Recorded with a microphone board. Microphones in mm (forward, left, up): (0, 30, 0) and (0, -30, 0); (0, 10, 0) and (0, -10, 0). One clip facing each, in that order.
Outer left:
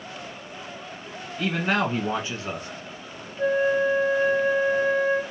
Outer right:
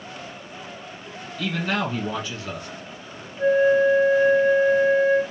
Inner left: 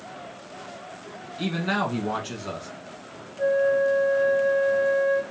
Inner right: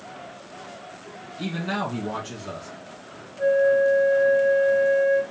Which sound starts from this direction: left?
A man speaking, at 1.4 s.